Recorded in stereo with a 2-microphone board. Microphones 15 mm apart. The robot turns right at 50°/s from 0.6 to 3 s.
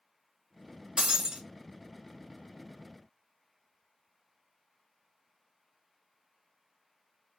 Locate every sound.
1.0 s breaking glass: 60° right (ahead or behind), 1.4 m; by 1.4 s 45° right (ahead or behind), 1.4 m